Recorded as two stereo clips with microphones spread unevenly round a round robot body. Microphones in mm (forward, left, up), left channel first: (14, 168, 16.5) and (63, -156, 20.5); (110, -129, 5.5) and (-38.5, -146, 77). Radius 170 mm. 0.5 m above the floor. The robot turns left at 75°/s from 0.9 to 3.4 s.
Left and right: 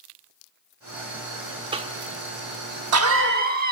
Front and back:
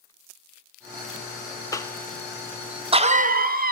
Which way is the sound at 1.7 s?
10° right.